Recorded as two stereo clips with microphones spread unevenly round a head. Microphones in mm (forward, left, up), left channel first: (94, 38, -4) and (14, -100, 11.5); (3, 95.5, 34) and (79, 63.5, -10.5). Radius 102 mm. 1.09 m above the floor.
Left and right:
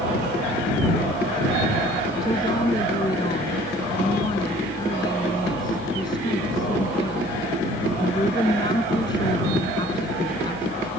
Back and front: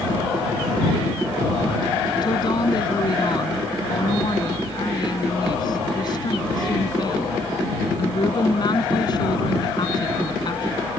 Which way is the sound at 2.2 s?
130° left.